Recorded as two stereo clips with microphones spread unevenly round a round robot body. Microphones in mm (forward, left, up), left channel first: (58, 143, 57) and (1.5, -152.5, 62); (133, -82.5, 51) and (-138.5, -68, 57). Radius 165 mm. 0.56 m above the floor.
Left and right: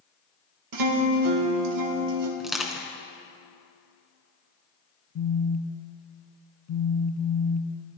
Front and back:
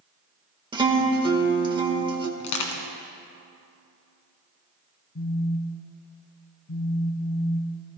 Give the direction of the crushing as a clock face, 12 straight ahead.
12 o'clock.